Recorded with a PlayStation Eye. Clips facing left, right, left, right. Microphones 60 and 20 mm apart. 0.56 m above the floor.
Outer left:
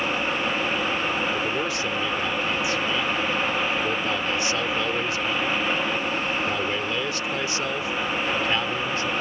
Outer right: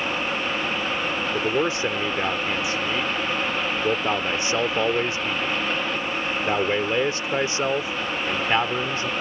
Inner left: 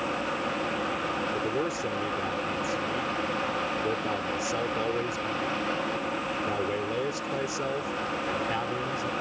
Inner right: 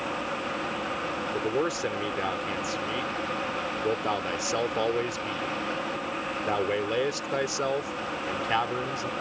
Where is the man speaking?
30° right (ahead or behind).